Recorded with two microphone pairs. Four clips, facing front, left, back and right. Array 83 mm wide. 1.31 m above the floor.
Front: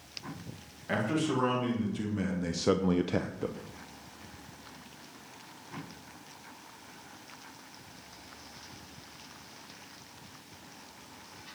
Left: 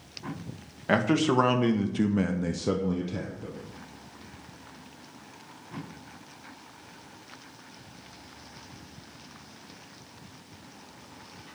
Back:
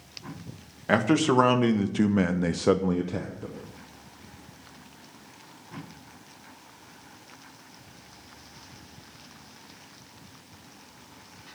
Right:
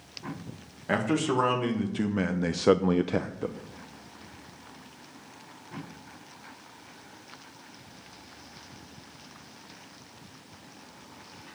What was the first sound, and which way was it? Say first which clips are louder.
A man speaking: left 3 dB, back 8 dB; 160° left.